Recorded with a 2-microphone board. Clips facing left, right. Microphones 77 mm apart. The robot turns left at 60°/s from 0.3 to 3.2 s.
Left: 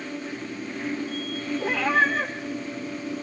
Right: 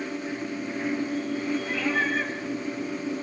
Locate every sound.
1.6 s a cat meowing: 105° left, 4.5 m; by 2.4 s 60° left, 4.5 m